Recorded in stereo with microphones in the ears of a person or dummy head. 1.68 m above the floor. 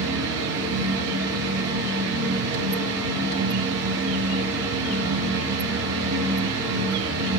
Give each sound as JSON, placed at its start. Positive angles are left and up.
{"t": 0.0, "sound": "a fan", "side_deg": -65, "distance_m": 1.8}